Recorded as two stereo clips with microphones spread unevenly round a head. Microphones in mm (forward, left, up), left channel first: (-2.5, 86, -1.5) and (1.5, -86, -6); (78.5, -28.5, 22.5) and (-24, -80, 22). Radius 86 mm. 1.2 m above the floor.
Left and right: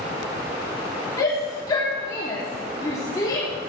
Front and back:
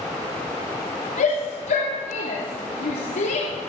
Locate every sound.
1.2 s a shout: 20° left, 3 m